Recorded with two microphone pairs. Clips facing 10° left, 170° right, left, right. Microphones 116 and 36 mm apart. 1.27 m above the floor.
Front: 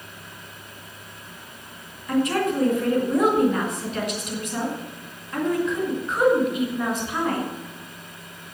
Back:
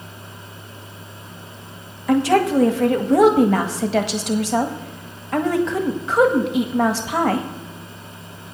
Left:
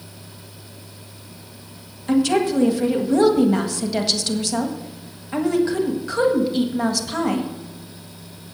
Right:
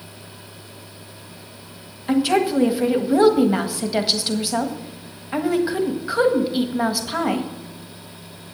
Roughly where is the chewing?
No chewing in this recording.